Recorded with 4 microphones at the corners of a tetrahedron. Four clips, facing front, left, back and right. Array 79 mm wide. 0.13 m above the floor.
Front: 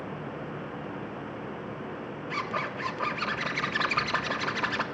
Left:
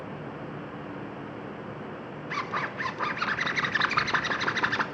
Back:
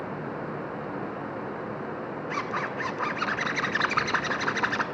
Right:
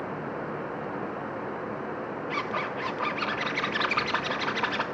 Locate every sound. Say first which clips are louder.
2.3 s a zipper: left 1 dB, back 1 dB; 145° left, 0.6 m